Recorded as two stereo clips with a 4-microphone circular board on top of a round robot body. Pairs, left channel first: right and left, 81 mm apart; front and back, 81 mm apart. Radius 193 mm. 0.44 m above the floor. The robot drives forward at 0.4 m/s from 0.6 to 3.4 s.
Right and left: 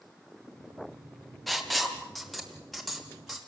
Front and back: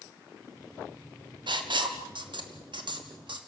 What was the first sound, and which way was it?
Writing, 175° right.